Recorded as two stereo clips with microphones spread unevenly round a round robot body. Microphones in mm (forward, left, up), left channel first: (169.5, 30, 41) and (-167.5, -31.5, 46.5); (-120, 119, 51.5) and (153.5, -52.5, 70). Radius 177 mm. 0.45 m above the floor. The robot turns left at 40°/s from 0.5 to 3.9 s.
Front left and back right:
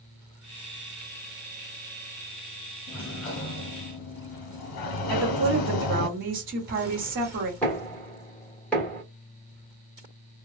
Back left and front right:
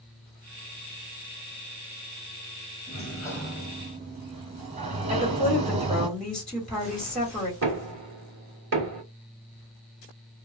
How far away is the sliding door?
About 0.9 m.